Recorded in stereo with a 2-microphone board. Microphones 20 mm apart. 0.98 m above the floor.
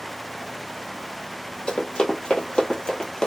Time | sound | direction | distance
1.7 | running footsteps | 60° left (ahead or behind) | 1.8 m